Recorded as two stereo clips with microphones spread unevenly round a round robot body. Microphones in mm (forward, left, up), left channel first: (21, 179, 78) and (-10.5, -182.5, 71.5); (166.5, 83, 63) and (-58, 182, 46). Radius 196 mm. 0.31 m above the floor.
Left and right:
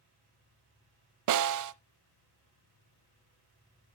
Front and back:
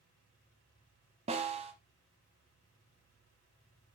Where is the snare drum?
135° right, 0.7 m.